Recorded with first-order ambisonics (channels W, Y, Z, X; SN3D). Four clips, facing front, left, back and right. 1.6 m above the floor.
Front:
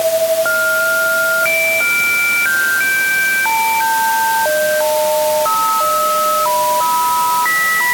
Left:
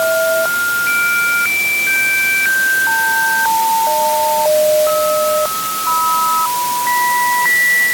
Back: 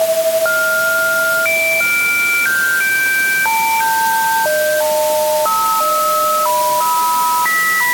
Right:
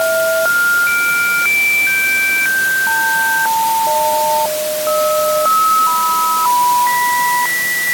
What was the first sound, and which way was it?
Only background noise.